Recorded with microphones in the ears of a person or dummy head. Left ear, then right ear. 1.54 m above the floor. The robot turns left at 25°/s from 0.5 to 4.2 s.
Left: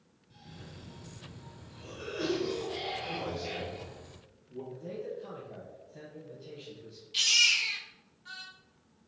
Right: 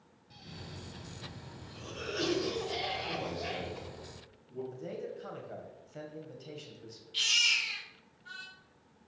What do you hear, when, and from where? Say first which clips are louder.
0.3 s a cough: right 3 dB; 30° right, 1.6 m; by 3.9 s 115° right, 1.6 m
3.0 s a man speaking: even; 10° right (ahead or behind), 4 m; by 4.6 s 40° right (ahead or behind), 4 m
4.7 s a man speaking: left 1 dB; 60° right (ahead or behind), 1.9 m
7.1 s a baby crying: left 3 dB; 15° left (ahead or behind), 2 m